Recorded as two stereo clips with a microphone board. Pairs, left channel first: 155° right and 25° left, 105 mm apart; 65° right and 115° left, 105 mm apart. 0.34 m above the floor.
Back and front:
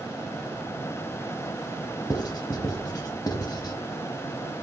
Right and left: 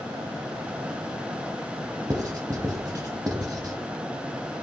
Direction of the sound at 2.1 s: 160° left.